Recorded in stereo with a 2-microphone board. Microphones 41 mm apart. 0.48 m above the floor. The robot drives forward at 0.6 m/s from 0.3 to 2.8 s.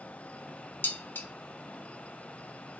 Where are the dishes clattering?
55° left (ahead or behind), 0.9 m.